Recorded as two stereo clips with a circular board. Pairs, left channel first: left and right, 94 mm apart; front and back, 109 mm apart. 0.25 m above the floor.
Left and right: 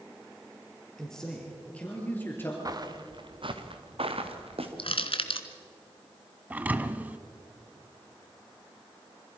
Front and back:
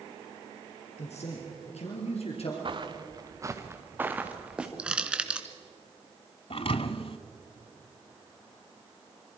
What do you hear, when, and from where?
1.0 s a man speaking: 5° left, 4.5 m; by 2.5 s 25° left, 4 m
2.6 s footsteps: 140° right, 1.5 m; by 4.7 s 100° right, 2.5 m
4.8 s crushing: 100° left, 1.3 m
6.5 s a thud: 20° right, 0.8 m